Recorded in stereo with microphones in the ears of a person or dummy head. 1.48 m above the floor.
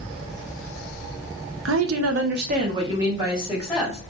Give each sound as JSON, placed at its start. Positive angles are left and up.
{"t": 1.6, "sound": "a woman speaking", "side_deg": -80, "distance_m": 0.6}